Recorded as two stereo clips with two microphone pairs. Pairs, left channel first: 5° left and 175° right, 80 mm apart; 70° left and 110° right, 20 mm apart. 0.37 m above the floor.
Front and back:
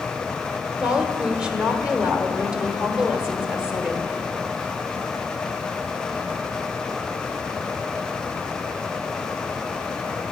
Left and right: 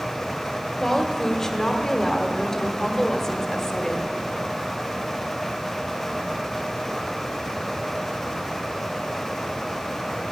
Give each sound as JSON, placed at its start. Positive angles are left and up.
{"t": 0.8, "sound": "a woman speaking", "azimuth_deg": 115, "distance_m": 1.2}